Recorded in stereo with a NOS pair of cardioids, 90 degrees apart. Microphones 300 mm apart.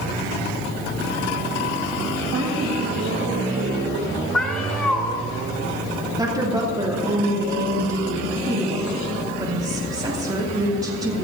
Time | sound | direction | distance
2.3 | a woman speaking | 50° right | 1.8 m
4.3 | a cat meowing | 5° left | 1.8 m
6.2 | a woman speaking | 10° right | 2.5 m